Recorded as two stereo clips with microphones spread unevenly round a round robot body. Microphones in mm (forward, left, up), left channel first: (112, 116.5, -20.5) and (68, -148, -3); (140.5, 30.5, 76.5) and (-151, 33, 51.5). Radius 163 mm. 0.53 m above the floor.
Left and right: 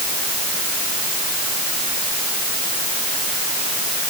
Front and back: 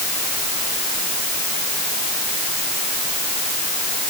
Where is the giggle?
No giggle in this recording.